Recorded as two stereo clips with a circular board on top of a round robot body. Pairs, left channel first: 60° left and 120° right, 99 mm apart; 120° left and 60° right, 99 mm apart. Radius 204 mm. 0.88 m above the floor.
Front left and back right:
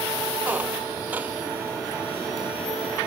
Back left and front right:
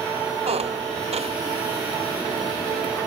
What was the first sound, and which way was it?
A squeak, 45° right.